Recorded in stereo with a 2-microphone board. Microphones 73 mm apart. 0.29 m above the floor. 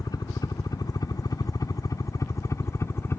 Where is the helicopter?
60° left (ahead or behind); by 3.2 s 35° left (ahead or behind).